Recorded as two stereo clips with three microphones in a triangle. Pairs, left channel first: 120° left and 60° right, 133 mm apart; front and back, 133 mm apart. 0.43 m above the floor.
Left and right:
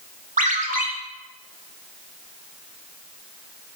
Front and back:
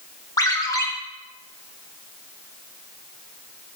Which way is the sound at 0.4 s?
60° right.